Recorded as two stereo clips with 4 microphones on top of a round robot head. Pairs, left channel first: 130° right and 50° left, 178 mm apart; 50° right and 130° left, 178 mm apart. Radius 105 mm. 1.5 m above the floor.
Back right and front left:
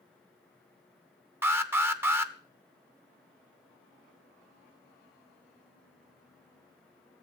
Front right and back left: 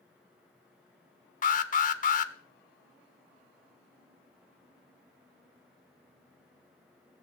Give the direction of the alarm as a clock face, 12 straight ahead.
1 o'clock.